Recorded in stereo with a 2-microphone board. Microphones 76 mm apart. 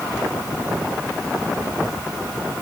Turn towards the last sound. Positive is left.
No sound to turn to.